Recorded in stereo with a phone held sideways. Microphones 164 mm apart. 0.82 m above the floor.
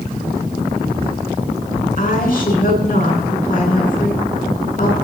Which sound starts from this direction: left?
A woman speaking, at 2.0 s.